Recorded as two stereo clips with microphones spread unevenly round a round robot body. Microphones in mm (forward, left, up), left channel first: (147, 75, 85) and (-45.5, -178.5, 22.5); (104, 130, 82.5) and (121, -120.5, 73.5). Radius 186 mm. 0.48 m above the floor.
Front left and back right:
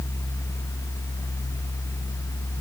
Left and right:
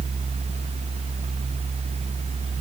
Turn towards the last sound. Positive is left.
No sound to turn to.